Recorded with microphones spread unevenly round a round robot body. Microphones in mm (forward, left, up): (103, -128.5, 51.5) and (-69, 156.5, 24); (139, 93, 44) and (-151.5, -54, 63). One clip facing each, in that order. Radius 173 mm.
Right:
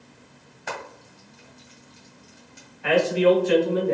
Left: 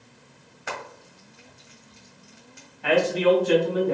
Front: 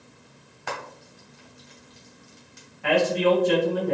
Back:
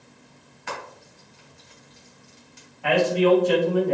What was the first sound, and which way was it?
Frying, 40° left.